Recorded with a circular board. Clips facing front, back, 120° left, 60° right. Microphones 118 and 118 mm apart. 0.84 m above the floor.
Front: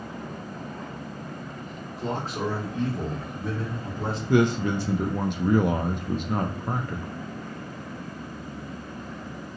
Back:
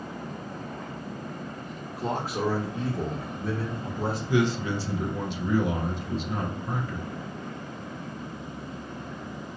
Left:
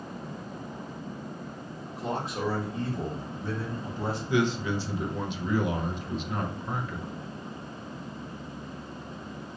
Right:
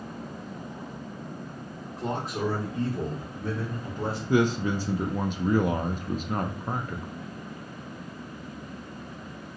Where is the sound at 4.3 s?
20° right, 0.8 m.